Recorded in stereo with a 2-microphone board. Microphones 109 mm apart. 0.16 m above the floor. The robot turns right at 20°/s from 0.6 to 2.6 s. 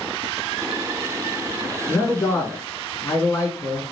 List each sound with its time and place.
1.9 s a man speaking: 20° left (ahead or behind), 1.7 m; by 3.8 s 25° left (ahead or behind), 1.7 m